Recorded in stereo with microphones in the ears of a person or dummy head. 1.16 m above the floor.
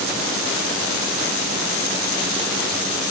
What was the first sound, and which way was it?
Only background noise.